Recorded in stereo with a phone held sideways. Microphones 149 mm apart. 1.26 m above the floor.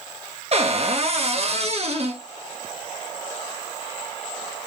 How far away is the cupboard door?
About 1.5 m.